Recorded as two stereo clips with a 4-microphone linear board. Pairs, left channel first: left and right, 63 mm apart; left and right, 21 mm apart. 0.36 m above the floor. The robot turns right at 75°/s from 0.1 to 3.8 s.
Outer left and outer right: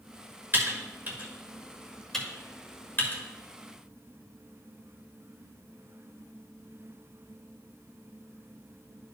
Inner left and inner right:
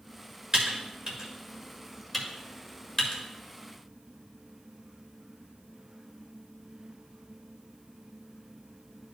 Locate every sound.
0.5 s typing on a keyboard: 30° right (ahead or behind), 1.5 m; by 3.2 s 35° left (ahead or behind), 1.5 m